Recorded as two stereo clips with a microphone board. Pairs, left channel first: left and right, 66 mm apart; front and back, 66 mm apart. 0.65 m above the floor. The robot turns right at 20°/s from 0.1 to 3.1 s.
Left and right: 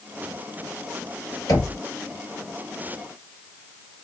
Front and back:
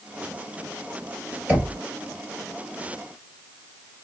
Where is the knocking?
115° left, 2.0 m; by 1.8 s 120° left, 2.0 m.